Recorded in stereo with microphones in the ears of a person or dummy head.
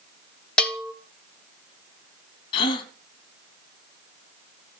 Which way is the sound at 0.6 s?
5° left (ahead or behind).